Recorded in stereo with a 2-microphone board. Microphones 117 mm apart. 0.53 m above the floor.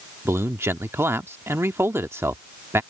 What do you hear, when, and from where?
0.2 s a man speaking: 20° right (ahead or behind)